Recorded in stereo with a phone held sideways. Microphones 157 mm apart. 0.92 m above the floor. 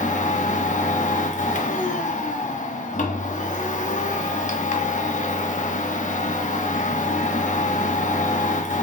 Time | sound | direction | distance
0.0 | a machine running | 50° left (ahead or behind) | 1.0 m